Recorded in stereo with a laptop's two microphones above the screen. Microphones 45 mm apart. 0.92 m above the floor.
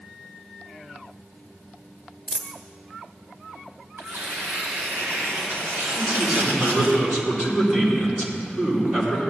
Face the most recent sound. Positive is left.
turn(degrees=-5)  # may be behind; listen again after turning